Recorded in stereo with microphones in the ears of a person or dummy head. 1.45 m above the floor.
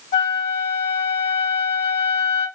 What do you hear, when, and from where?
0.1 s a flute: 50° left (ahead or behind), 1.2 m